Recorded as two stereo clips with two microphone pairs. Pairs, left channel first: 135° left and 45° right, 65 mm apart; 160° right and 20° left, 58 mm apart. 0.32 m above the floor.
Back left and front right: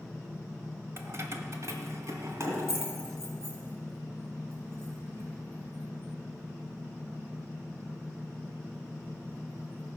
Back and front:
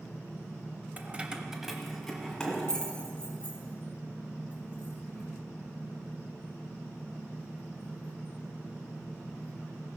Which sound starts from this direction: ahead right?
Keys jangling, at 1.0 s.